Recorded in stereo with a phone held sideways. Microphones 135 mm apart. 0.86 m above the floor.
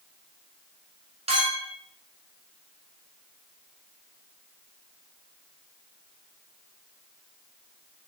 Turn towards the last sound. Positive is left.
turn(degrees=-50)  # may be behind; listen again after turning